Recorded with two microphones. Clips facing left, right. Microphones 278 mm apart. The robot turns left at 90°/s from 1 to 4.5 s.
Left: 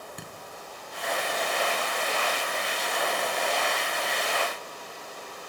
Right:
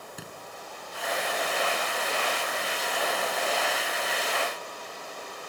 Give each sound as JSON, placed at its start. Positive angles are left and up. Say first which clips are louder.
{"t": 0.2, "sound": "a thud", "louder": "even", "side_deg": -5, "distance_m": 3.5}